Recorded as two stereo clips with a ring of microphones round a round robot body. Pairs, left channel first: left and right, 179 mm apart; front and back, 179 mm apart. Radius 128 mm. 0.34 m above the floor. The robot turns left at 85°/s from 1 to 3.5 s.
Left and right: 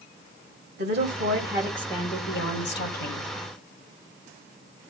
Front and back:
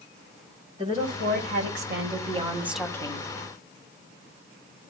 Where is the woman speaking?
120° right, 2.5 m; by 3.3 s 50° left, 2.5 m.